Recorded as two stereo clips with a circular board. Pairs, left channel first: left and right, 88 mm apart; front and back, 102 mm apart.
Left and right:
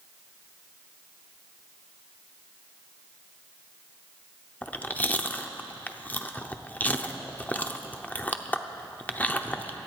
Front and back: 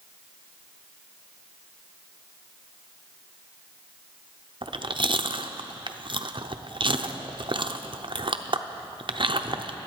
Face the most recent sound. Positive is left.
turn(degrees=160)